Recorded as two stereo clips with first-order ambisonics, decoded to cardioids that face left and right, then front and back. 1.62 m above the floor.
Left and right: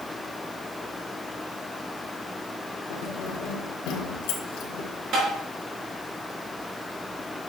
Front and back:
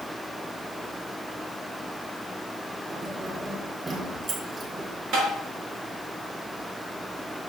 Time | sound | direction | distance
2.9 | keys jangling | 110° left | 3.5 m
5.1 | tapping | 135° right | 5.5 m